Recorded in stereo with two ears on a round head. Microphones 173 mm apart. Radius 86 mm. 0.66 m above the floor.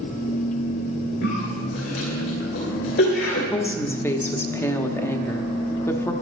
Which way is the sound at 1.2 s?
65° left (ahead or behind).